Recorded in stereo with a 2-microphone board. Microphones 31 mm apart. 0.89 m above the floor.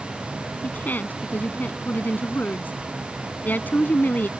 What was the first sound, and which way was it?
A woman speaking, 75° left (ahead or behind).